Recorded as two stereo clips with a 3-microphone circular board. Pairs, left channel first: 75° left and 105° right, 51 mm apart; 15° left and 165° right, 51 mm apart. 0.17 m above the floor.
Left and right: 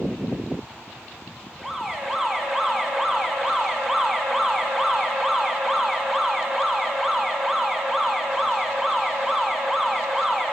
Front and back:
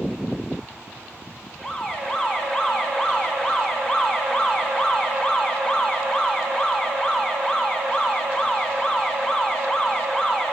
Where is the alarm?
25° right, 1.2 m.